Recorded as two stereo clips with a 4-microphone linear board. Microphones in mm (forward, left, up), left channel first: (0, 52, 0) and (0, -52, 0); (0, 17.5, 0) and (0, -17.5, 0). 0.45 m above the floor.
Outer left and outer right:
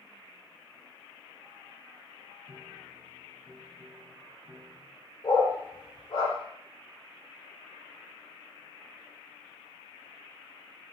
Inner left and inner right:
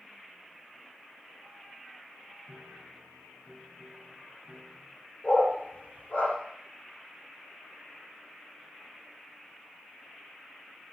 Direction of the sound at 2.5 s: 45° right (ahead or behind).